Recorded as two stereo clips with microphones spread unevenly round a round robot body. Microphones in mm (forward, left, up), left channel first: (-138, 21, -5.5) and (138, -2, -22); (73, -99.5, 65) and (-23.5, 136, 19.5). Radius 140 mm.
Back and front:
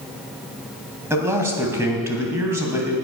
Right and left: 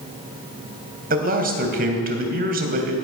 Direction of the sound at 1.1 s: 75° left.